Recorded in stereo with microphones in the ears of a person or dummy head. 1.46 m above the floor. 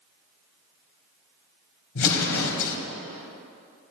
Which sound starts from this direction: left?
An explosion, at 1.9 s.